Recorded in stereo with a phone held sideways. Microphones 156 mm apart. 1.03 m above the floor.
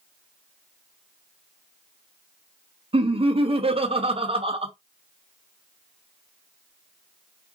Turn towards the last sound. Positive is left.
turn(degrees=-40)  # may be behind; listen again after turning